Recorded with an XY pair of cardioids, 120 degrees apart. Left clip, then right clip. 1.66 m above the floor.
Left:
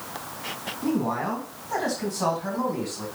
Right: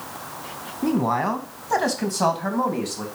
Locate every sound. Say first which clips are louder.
0.8 s a man speaking: right 5 dB; 50° right, 1.9 m; by 3.0 s 60° right, 3 m